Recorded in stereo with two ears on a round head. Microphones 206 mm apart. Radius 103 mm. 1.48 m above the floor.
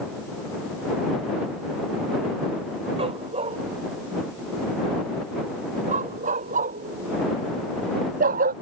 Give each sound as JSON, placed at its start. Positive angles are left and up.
{"t": 3.0, "sound": "a dog barking", "side_deg": -25}